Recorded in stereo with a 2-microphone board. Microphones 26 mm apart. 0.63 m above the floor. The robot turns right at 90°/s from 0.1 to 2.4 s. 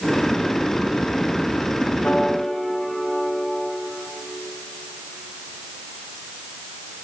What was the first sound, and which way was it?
A piano, 105° left.